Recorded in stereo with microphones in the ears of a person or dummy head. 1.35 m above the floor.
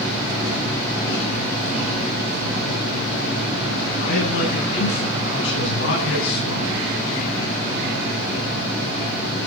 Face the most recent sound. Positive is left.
turn(degrees=75)  # may be behind; listen again after turning